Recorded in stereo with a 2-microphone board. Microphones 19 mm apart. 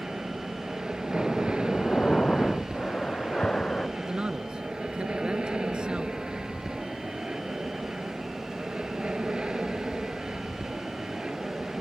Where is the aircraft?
55° right (ahead or behind).